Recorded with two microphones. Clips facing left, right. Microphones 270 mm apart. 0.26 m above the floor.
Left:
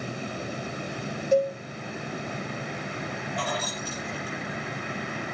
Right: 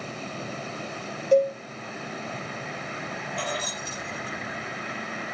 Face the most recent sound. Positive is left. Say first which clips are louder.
# even
turn(degrees=-25)  # may be behind; listen again after turning